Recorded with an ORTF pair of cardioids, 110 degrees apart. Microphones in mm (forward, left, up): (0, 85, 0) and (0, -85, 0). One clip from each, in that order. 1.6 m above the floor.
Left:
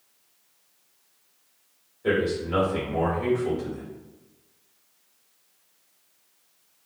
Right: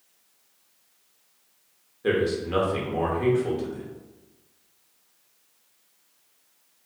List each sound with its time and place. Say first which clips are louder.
2.0 s a man speaking: even; 20° right, 1.1 m